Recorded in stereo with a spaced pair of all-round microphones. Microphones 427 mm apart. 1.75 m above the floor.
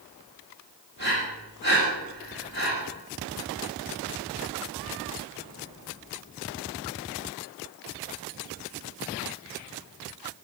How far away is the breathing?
About 6 m.